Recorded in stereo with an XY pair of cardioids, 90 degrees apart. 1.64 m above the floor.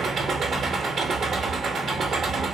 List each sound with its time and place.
0.0 s an engine running: 60° right, 0.8 m